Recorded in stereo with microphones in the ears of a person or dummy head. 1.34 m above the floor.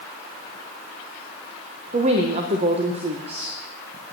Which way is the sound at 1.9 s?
35° right (ahead or behind).